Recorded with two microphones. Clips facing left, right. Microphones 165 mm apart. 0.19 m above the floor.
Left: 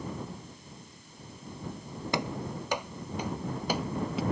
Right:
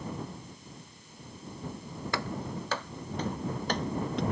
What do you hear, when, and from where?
2.1 s running footsteps: 20° left (ahead or behind); by 4.2 s 5° left (ahead or behind)